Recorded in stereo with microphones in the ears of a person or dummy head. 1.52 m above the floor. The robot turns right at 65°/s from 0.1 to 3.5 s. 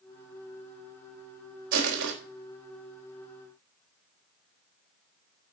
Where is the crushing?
55° right (ahead or behind), 3.5 m; by 2.1 s 80° right, 3.5 m.